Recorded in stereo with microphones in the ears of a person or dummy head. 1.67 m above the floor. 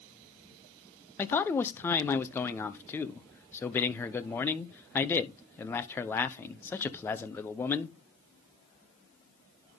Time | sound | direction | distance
1.2 | a man speaking | 10° left (ahead or behind) | 0.8 m